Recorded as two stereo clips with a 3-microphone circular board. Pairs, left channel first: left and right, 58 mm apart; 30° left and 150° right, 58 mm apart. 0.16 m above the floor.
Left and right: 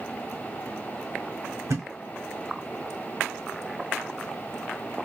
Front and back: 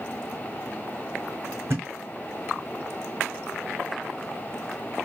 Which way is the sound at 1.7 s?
110° right.